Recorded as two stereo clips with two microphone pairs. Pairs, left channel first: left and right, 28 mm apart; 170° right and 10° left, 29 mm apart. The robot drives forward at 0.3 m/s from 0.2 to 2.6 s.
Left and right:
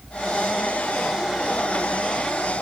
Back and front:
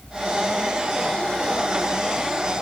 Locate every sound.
Only background noise.